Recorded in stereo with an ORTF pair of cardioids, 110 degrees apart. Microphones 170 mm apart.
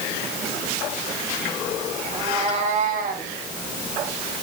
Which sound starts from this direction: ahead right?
A cat meowing, at 2.1 s.